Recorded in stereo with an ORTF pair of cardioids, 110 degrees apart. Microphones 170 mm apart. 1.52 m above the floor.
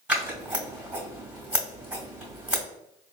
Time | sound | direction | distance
0.1 | scissors | 5° right | 2.0 m